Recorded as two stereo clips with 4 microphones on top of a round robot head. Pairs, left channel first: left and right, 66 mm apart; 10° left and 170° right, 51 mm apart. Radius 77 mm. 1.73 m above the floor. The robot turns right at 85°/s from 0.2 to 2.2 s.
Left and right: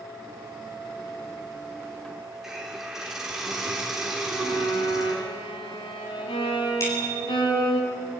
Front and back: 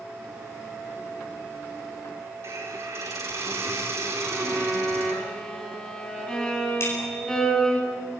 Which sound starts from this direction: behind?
A hiss, at 2.4 s.